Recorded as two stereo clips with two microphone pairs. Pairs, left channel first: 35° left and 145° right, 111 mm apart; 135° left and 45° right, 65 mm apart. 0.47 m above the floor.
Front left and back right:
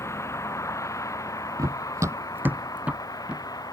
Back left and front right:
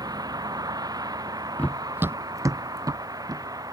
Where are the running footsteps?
Straight behind; by 3.5 s 65° right.